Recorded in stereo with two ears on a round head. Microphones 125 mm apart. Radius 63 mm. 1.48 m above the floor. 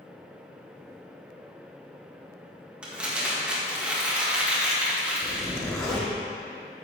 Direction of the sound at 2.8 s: 10° right (ahead or behind).